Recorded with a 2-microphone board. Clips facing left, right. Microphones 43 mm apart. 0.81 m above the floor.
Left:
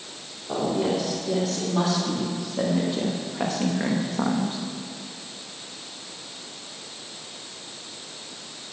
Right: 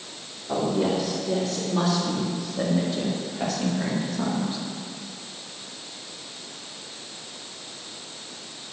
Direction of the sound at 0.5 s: Centre (ahead or behind).